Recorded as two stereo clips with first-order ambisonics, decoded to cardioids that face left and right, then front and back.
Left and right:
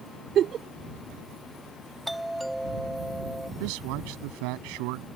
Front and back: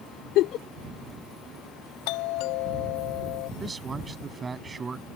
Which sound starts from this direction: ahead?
A doorbell, at 2.1 s.